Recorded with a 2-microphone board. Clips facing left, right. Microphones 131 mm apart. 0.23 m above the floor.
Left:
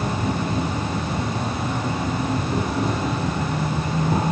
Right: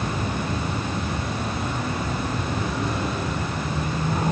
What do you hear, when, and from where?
0.0 s an insect: 85° left, 8.5 m